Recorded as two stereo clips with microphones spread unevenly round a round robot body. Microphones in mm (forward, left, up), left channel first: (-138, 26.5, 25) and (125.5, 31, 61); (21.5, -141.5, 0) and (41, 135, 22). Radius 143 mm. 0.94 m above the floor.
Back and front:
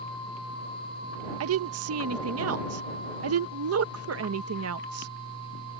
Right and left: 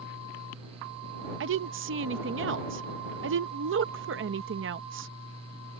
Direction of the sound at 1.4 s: 40° left.